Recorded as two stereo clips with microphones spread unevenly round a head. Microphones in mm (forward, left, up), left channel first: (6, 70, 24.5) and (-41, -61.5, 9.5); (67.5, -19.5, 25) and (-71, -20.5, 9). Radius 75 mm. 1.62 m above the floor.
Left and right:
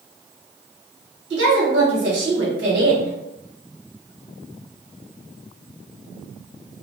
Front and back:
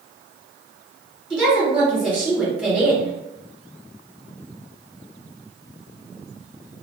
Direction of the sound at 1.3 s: 95° right.